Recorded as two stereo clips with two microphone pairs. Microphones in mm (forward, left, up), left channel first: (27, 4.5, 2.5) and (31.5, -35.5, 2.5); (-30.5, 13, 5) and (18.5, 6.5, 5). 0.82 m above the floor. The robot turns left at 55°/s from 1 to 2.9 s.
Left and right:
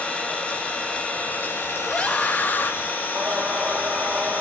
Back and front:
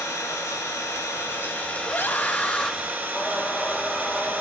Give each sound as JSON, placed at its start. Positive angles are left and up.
{"t": 0.0, "sound": "an engine running", "azimuth_deg": 155, "distance_m": 3.5}
{"t": 1.8, "sound": "a scream", "azimuth_deg": 155, "distance_m": 0.9}
{"t": 3.1, "sound": "singing", "azimuth_deg": -125, "distance_m": 1.5}